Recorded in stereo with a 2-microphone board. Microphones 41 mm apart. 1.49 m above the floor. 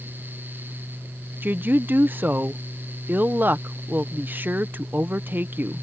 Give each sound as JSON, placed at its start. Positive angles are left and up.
{"t": 1.4, "sound": "a woman speaking", "side_deg": -50}